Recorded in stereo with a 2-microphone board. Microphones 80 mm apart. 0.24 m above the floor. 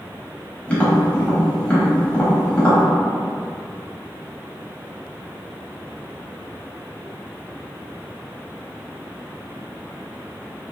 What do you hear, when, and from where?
0.7 s tapping: 15° left (ahead or behind), 0.9 m